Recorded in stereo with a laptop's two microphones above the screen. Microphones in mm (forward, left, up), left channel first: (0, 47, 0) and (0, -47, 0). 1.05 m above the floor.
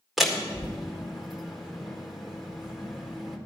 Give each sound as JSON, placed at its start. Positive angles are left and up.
{"t": 0.2, "sound": "a door slam", "side_deg": -5, "distance_m": 1.7}